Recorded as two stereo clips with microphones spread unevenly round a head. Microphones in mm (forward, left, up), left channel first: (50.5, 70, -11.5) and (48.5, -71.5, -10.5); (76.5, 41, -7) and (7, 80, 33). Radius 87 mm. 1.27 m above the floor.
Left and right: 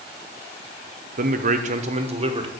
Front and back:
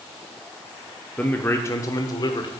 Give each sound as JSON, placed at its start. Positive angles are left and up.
{"t": 1.2, "sound": "a man speaking", "azimuth_deg": -85, "distance_m": 0.7}